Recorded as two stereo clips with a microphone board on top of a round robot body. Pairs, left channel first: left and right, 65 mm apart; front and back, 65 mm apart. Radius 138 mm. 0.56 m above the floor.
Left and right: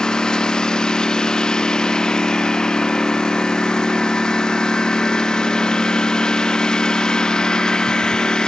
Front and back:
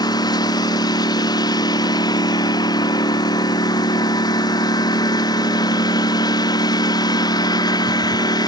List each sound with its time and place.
0.0 s a lawn mower: 10° left